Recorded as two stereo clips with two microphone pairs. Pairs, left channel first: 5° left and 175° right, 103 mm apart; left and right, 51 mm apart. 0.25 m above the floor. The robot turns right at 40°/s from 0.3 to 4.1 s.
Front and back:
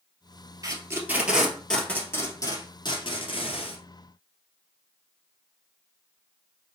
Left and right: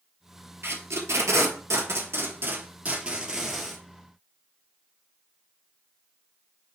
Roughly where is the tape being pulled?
Behind right.